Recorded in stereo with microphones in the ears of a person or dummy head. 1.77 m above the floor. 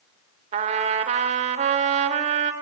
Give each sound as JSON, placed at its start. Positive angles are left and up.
{"t": 0.5, "sound": "a trumpet", "side_deg": -35, "distance_m": 3.5}